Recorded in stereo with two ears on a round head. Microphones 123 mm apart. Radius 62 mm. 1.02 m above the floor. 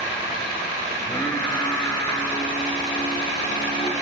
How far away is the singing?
About 2.5 m.